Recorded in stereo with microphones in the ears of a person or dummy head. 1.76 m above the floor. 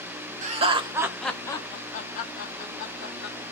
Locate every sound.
0.4 s laughter: 40° right (ahead or behind), 0.8 m; by 3.4 s 65° left (ahead or behind), 1.6 m